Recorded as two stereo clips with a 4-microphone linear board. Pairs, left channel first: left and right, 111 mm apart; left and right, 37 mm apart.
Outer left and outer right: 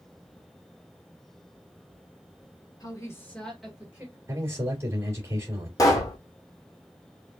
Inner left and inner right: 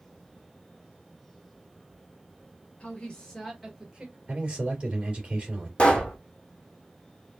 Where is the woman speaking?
35° left (ahead or behind), 2 m; by 4.2 s 20° right (ahead or behind), 2 m.